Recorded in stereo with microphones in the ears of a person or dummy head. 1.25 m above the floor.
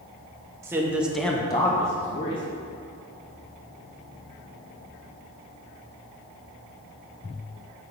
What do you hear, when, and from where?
0.6 s a man speaking: 15° right (ahead or behind), 1.0 m; by 2.4 s 30° left (ahead or behind), 1.2 m